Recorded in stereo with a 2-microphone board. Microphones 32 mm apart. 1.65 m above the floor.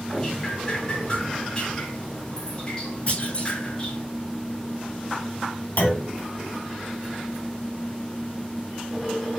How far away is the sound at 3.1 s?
About 5 m.